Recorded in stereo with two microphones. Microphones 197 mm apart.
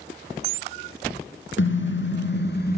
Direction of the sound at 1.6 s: 75° left (ahead or behind).